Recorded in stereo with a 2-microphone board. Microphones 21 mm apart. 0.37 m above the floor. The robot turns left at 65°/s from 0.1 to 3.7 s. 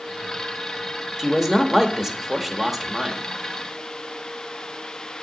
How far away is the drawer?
No drawer in this recording.